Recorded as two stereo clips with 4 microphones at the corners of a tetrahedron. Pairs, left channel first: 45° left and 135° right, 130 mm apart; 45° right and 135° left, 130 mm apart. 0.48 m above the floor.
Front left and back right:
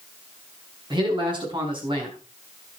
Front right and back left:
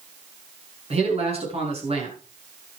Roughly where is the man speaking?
Behind.